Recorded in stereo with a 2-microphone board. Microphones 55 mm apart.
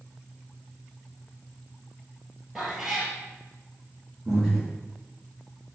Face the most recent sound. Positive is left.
turn(degrees=0)  # may be behind; listen again after turning